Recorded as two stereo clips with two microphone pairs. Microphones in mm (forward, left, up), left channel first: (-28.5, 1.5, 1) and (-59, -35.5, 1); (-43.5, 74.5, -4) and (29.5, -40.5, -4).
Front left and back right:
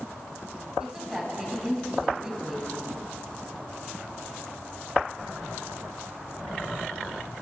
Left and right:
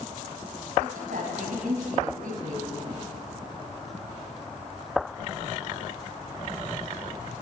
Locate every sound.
0.8 s a woman speaking: 50° right, 7 m